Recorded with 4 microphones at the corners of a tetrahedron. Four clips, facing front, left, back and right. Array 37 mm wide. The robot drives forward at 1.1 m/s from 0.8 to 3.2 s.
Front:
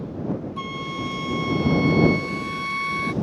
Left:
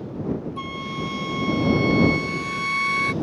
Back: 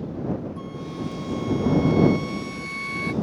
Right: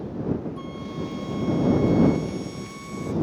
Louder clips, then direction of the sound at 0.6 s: Left 3 dB, front 4 dB; 35° left.